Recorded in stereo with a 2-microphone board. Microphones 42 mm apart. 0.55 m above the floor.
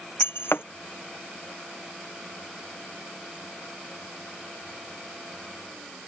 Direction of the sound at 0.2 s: 70° left (ahead or behind).